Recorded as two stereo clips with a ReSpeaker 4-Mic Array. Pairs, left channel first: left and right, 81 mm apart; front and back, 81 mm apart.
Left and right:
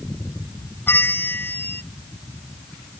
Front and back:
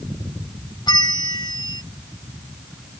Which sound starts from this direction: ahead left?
A bell, at 0.9 s.